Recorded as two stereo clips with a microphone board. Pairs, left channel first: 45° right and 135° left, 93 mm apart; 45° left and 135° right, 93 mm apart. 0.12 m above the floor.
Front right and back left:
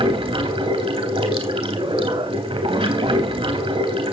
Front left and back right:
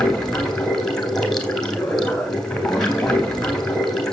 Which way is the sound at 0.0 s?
130° left.